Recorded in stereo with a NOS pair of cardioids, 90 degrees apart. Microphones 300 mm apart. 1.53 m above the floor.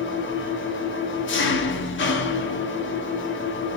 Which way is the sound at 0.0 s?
40° left.